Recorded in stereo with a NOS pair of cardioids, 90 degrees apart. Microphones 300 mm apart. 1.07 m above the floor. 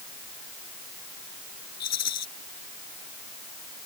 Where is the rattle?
60° left.